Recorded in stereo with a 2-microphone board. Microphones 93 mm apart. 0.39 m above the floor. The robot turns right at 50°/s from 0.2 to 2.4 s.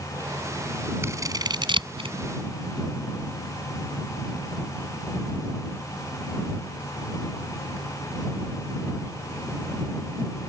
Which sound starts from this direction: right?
Scissors, at 1.0 s.